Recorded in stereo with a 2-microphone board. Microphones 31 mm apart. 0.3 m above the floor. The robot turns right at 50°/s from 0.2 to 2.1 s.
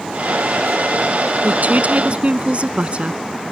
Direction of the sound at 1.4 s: 85° right.